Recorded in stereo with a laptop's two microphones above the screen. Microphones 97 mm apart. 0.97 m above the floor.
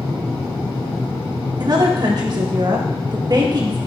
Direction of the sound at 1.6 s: 45° right (ahead or behind).